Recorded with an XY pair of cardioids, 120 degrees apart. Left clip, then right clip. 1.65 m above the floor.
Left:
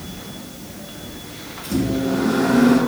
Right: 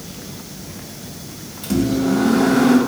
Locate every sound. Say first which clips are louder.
1.6 s a microwave: right 3 dB; 65° right, 1.4 m